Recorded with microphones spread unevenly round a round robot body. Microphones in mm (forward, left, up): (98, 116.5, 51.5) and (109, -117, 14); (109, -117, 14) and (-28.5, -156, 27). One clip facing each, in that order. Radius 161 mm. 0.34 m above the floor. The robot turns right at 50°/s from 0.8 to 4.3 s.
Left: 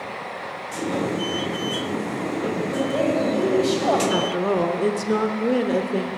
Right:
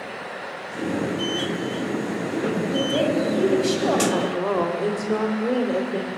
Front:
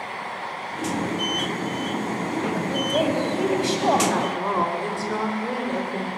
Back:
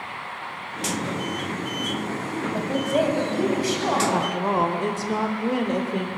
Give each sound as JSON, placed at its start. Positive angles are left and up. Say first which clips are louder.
{"t": 2.5, "sound": "a woman speaking", "louder": "right 1 dB, back 3 dB", "azimuth_deg": -95, "distance_m": 2.5}
{"t": 4.1, "sound": "a woman speaking", "louder": "left 1 dB, back 1 dB", "azimuth_deg": 140, "distance_m": 0.8}